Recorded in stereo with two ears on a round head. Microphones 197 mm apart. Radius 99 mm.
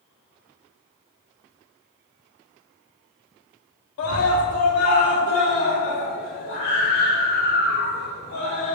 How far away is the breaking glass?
No breaking glass in this recording.